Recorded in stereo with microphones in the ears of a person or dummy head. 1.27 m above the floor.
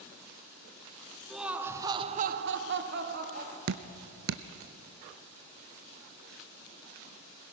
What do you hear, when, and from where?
1.3 s laughter: centre (ahead or behind), 1.1 m; by 3.6 s 50° right (ahead or behind), 1.3 m
3.7 s dripping: 65° right (ahead or behind), 0.7 m